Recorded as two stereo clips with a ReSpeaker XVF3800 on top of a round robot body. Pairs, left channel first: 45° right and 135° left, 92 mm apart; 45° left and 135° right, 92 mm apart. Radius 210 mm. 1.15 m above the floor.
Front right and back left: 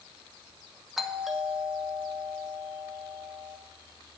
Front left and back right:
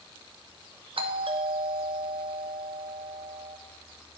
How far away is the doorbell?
About 1.0 m.